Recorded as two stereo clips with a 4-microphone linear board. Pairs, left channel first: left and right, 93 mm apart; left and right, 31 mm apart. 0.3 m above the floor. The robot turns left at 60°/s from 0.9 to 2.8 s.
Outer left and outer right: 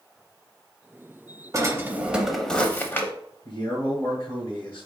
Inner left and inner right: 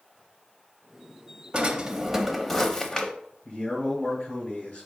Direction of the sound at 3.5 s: 40° left (ahead or behind).